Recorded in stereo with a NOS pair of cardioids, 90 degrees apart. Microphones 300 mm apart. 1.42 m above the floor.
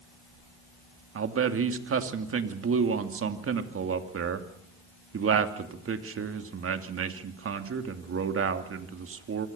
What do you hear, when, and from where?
1.1 s a man speaking: 45° right, 2.5 m